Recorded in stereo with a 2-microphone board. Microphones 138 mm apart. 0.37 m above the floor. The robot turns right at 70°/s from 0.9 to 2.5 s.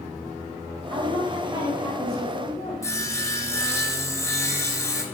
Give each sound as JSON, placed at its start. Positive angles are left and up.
{"t": 0.9, "sound": "a woman speaking", "azimuth_deg": -75, "distance_m": 2.5}
{"t": 2.8, "sound": "sawing", "side_deg": 20, "distance_m": 1.2}